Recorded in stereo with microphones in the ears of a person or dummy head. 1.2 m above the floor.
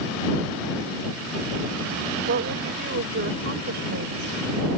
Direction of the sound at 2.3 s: 55° right (ahead or behind).